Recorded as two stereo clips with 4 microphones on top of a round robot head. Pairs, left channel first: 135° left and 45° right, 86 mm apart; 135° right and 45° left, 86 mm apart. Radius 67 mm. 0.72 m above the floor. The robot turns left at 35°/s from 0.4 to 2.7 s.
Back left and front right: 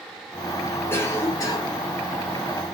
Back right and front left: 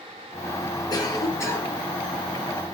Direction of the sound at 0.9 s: 165° right.